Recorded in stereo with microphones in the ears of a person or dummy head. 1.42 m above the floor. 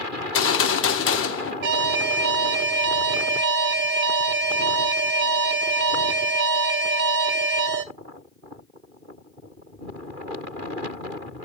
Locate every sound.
0.2 s a gunshot: 60° left (ahead or behind), 0.9 m
1.6 s an alarm: 60° right (ahead or behind), 0.8 m